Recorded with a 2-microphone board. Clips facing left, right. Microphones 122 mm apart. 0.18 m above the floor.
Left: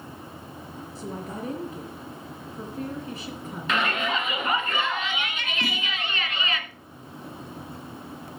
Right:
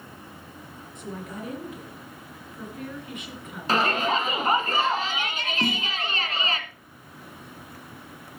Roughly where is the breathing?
I don't hear breathing.